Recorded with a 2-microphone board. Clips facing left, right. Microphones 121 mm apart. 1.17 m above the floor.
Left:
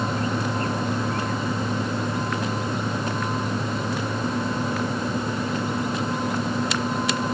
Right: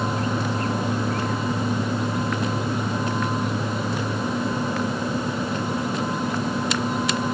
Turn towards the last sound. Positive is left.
No sound to turn to.